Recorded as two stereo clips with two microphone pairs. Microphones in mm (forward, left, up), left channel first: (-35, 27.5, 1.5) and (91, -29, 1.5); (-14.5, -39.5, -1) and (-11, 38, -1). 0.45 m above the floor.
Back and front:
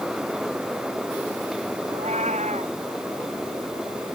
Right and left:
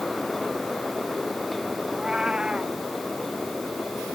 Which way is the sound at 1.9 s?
10° left.